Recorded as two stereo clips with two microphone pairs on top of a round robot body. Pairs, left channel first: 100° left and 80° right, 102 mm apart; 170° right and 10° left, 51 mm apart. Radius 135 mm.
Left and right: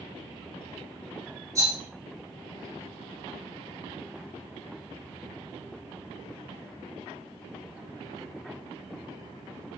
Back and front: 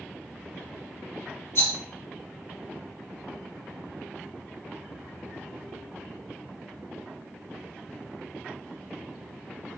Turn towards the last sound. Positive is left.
turn(degrees=-140)